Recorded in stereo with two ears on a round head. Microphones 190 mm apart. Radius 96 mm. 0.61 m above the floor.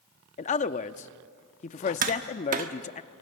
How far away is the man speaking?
About 0.6 m.